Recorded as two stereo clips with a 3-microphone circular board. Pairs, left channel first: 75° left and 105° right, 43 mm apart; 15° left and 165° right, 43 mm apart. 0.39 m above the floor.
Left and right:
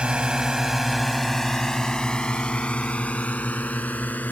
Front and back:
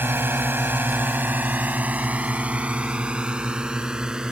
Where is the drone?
165° right; by 4.3 s 120° left.